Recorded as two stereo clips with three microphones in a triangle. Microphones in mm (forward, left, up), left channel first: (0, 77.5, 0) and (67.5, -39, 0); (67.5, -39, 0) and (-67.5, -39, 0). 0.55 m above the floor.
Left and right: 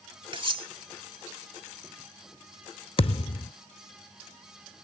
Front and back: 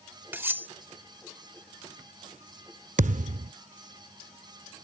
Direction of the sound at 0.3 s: 105° right.